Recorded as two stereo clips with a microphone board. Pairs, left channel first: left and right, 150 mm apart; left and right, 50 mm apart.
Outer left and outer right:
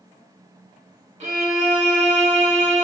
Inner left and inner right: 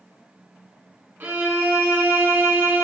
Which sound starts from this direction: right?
A violin, at 1.2 s.